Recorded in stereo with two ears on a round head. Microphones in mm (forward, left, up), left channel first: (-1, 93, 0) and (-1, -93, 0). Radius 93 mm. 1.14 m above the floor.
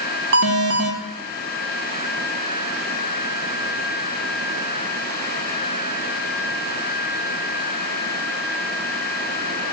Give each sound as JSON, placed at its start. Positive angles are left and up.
{"t": 0.3, "sound": "an alarm", "side_deg": -60, "distance_m": 2.5}